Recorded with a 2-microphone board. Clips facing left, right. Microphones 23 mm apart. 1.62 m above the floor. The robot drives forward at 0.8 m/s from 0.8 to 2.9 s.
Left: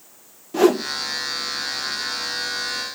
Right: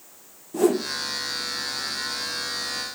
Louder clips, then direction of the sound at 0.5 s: Left 4 dB; 45° left (ahead or behind).